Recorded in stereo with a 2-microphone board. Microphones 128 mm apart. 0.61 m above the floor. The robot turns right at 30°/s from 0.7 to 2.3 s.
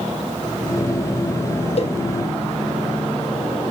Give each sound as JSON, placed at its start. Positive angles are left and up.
{"t": 1.8, "sound": "a cowbell", "side_deg": 55, "distance_m": 0.5}